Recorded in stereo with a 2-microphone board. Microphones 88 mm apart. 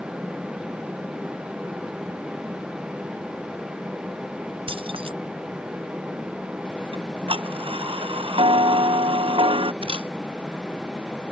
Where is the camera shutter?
75° right (ahead or behind).